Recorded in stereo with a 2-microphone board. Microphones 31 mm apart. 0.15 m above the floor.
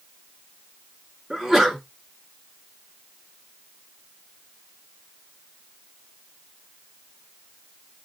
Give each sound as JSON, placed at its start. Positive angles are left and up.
{"t": 1.3, "sound": "a sneeze", "side_deg": -15, "distance_m": 1.5}